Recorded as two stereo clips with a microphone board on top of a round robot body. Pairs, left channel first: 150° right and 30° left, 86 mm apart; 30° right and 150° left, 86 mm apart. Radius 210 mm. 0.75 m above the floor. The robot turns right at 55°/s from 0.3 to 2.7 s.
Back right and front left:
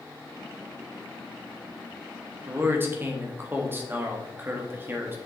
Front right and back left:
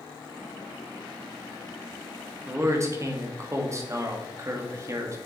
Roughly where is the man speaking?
Left.